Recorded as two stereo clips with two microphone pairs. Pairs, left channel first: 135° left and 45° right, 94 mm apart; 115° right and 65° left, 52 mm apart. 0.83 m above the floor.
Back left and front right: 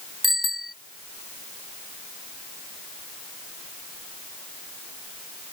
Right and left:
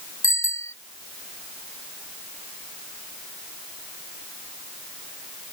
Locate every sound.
0.2 s a bicycle bell: 135° right